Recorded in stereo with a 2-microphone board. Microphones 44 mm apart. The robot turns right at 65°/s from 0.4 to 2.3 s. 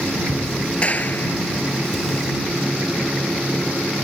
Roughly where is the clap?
Ahead left.